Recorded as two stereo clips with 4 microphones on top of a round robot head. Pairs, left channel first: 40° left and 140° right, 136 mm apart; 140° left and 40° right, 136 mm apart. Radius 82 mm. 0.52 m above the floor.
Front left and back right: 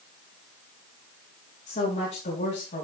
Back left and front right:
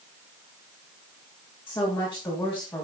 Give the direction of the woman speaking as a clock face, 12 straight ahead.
10 o'clock.